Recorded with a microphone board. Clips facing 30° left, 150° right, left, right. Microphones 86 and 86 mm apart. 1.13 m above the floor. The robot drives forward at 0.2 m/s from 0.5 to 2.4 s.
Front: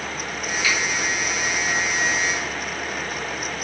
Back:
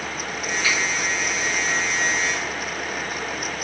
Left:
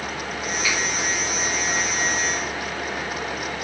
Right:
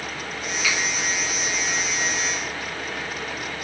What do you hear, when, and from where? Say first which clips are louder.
0.6 s a finger snap: front 1 dB, right 1 dB; 100° right, 1.9 m; by 0.8 s 105° right, 1.9 m